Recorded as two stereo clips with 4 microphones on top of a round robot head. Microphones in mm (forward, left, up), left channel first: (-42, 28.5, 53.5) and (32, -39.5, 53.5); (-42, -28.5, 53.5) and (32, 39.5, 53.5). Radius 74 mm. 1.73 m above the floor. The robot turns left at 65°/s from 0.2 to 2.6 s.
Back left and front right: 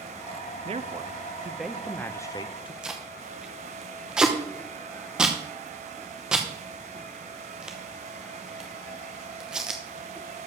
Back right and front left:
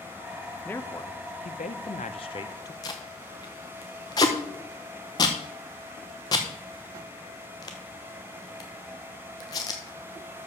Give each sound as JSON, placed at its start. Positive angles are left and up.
{"t": 0.7, "sound": "a man speaking", "azimuth_deg": -60, "distance_m": 0.5}
{"t": 2.8, "sound": "tape being pulled", "azimuth_deg": -115, "distance_m": 0.8}